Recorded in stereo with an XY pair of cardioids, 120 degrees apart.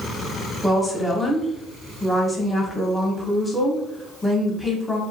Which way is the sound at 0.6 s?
Straight ahead.